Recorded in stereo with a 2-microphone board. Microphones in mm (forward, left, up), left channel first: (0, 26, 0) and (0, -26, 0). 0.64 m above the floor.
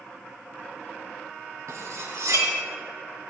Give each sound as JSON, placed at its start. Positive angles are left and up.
{"t": 1.7, "sound": "cutlery clinking", "side_deg": -85, "distance_m": 3.0}